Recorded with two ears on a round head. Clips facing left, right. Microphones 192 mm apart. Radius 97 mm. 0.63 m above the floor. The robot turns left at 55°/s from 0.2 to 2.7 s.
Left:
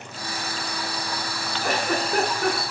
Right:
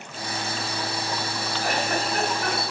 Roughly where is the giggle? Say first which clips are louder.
Left 2 dB; left.